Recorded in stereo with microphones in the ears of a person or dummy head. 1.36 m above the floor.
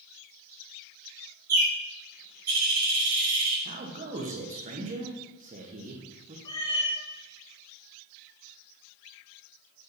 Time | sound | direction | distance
1.5 | a bird | 45° right (ahead or behind) | 2.5 m
3.6 | a man speaking | 35° right (ahead or behind) | 1.8 m
6.5 | a cat meowing | 20° left (ahead or behind) | 1.0 m